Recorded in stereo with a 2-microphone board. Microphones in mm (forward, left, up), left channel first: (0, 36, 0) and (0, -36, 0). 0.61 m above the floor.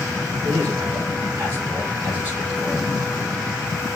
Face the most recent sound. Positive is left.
turn(degrees=-25)  # may be behind; listen again after turning